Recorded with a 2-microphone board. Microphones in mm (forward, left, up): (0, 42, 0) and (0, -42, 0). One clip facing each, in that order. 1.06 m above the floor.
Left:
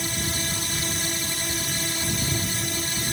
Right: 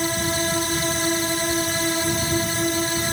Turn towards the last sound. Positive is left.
turn(degrees=-45)  # may be behind; listen again after turning